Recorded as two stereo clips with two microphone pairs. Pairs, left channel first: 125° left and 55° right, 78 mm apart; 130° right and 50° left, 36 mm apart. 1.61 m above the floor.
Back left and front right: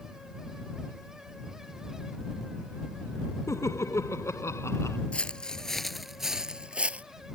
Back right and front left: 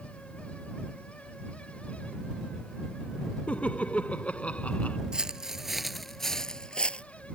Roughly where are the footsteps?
Left.